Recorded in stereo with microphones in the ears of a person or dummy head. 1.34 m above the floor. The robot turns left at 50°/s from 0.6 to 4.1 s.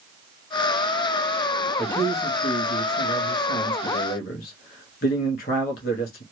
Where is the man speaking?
Straight behind, 0.8 m; by 6.2 s 60° left, 0.8 m.